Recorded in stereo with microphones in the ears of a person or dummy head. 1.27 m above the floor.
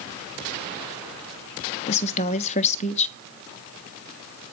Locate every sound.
1.9 s a woman speaking: 40° left (ahead or behind), 1.1 m